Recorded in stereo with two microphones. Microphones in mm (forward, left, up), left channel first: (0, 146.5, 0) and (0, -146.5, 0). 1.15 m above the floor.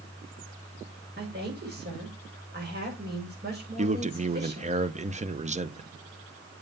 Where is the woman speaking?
35° right (ahead or behind), 6.5 m.